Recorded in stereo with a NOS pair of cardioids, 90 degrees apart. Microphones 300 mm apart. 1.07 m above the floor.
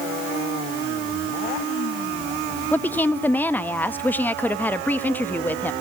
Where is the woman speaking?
5° left, 1.1 m.